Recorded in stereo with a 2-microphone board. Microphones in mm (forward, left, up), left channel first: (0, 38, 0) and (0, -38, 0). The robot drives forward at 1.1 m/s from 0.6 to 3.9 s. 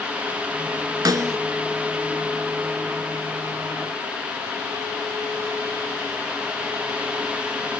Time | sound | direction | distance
1.1 | a snare drum | 55° right (ahead or behind) | 0.6 m